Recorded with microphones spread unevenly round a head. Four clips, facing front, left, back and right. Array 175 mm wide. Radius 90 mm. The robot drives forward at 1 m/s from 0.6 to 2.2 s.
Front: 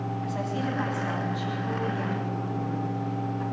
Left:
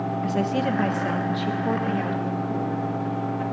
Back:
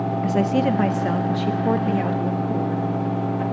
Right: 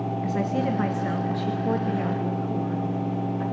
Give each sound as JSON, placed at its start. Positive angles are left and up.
{"t": 0.2, "sound": "a woman speaking", "azimuth_deg": 170, "distance_m": 1.6}